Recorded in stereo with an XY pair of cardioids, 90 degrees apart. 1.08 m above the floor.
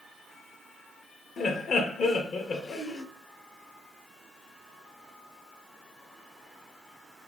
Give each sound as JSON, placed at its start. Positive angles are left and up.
{"t": 1.4, "sound": "laughter", "azimuth_deg": 60, "distance_m": 1.0}